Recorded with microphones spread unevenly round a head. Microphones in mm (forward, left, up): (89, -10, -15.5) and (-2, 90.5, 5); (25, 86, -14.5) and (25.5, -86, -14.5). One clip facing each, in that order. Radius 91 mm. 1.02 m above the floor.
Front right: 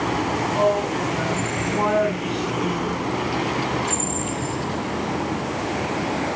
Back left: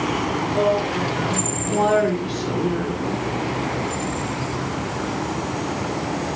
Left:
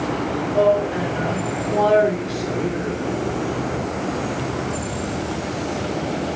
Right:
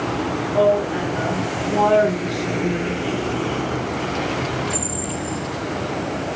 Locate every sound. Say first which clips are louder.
0.5 s a woman speaking: back left 1 dB, even; 170° left, 3 m; by 3.2 s 175° right, 1.7 m